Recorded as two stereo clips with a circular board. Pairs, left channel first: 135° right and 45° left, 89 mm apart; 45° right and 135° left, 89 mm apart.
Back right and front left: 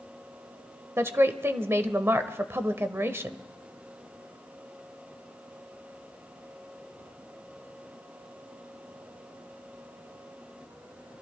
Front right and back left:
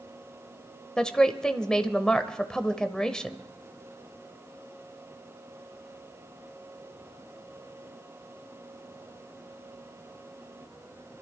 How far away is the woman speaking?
About 1.0 m.